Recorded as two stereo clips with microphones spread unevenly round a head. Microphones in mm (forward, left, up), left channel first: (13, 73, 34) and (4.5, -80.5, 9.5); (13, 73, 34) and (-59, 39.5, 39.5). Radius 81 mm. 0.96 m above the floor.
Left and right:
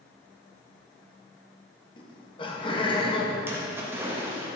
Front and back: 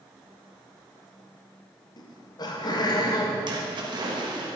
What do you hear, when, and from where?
2.0 s laughter: 25° left, 1.5 m
3.5 s a splash: 165° right, 1.6 m